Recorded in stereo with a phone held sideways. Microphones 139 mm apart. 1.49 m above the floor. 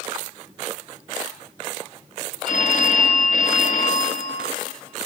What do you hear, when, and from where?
2.5 s a phone ringing: 65° left (ahead or behind), 0.8 m